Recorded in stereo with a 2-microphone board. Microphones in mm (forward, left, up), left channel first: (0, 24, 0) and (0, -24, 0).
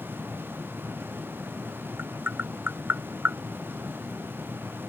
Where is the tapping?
45° right (ahead or behind).